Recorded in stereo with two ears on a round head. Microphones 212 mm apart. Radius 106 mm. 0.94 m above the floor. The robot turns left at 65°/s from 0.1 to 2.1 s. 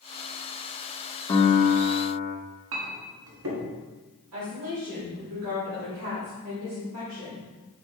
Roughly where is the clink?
Right.